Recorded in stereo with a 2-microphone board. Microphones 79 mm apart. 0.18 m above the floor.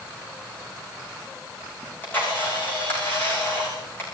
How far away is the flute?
I don't hear a flute.